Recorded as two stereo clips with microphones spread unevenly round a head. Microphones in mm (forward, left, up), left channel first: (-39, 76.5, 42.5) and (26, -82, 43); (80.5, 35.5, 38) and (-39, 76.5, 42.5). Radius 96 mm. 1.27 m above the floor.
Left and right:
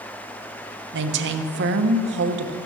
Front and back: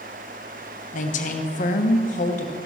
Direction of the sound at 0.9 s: 50° right.